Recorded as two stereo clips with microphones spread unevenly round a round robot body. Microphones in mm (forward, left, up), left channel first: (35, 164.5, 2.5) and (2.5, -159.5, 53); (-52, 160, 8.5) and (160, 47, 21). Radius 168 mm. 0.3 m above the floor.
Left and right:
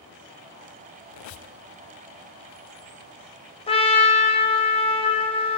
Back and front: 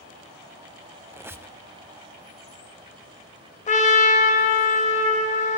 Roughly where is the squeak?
Ahead left.